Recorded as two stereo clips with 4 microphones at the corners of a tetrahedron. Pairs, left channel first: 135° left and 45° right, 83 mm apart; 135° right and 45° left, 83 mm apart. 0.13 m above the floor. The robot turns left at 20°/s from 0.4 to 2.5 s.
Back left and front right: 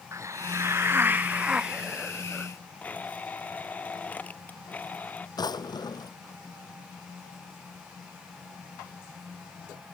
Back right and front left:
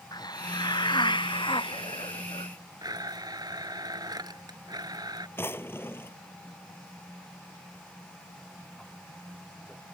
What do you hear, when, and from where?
0.1 s a hiss: 100° right; by 2.5 s 140° right
2.8 s a blender: 65° left
5.4 s a drawer: 165° left